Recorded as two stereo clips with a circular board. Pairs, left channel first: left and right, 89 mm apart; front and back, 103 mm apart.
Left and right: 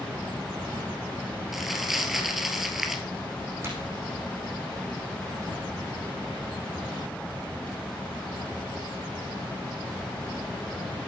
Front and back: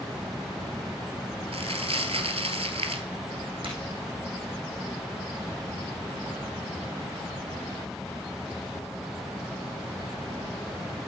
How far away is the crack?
About 5.5 m.